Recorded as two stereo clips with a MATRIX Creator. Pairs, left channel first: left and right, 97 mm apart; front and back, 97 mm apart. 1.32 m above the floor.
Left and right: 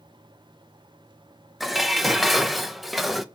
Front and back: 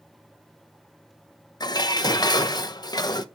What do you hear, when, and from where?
1.6 s dishes clattering: straight ahead, 0.5 m